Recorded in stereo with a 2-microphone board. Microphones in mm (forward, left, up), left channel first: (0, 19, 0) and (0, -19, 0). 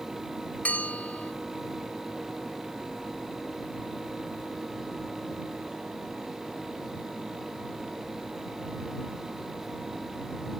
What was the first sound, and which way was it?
A bell, 45° left (ahead or behind).